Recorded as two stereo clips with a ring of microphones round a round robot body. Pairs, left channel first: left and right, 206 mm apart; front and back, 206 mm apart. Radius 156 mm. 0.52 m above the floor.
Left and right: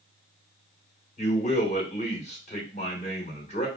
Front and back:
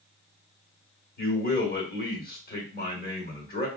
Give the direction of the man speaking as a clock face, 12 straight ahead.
11 o'clock.